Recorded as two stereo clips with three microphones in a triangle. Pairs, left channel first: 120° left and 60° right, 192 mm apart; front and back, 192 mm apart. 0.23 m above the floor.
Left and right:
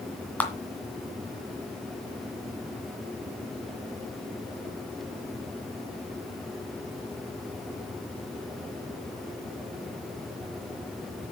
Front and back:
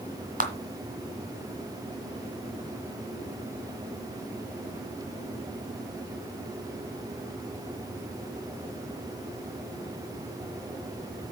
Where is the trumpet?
I don't hear a trumpet.